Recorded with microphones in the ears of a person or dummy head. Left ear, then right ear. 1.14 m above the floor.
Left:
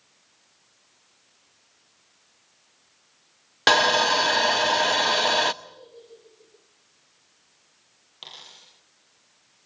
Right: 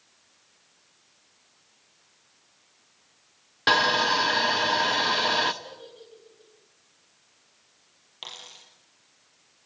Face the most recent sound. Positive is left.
turn(degrees=-25)  # may be behind; listen again after turning